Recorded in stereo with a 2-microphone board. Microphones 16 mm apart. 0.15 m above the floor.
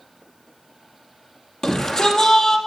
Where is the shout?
40° left (ahead or behind), 4 m.